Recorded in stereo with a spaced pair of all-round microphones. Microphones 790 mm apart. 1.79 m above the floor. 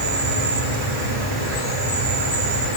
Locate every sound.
0.0 s an insect: 35° right (ahead or behind), 4 m